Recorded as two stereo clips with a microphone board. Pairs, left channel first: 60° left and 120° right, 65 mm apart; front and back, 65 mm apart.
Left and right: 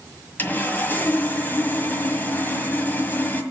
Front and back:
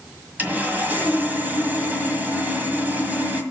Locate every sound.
0.4 s sawing: 120° left, 1.7 m